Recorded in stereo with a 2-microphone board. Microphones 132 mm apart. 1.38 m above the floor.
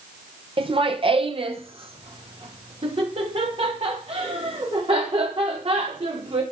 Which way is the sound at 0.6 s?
40° right (ahead or behind).